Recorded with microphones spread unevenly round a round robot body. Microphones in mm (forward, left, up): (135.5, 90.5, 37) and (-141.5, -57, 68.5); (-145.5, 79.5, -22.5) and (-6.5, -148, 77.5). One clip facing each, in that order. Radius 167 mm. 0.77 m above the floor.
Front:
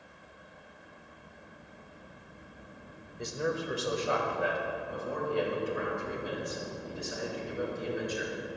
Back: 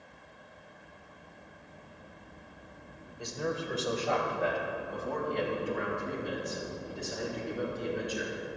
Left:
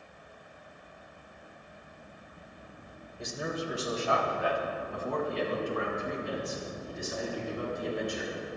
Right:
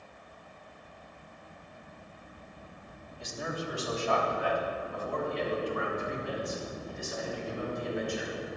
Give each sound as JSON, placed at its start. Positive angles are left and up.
{"t": 3.2, "sound": "a man speaking", "azimuth_deg": 95, "distance_m": 3.0}